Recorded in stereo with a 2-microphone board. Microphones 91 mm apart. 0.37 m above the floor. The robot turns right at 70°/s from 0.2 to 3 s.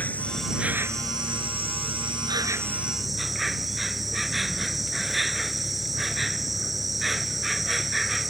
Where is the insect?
165° left; by 8.3 s straight ahead.